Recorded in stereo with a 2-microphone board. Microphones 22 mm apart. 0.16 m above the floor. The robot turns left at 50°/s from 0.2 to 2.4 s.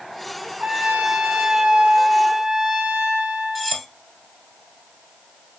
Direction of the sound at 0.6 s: 60° right.